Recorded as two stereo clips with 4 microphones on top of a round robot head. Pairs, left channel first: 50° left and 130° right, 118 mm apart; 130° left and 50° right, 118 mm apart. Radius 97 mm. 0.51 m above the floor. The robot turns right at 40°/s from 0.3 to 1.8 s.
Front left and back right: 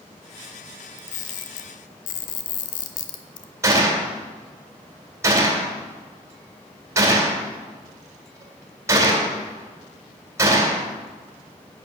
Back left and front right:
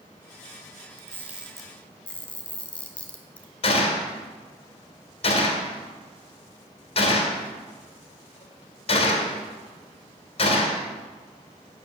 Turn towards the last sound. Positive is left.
turn(degrees=165)